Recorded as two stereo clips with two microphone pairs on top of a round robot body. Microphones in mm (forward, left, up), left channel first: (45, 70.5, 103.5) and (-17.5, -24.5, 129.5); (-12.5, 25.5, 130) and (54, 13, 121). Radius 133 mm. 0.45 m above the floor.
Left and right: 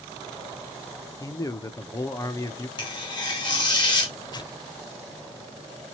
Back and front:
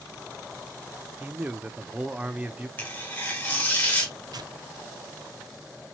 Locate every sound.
1.2 s a man speaking: 40° left, 0.9 m
2.8 s tearing paper: 100° left, 1.9 m
4.3 s tearing paper: 10° left, 0.6 m